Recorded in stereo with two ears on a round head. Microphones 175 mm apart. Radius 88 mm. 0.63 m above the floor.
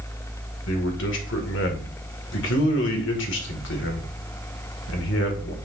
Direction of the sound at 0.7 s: 65° left (ahead or behind).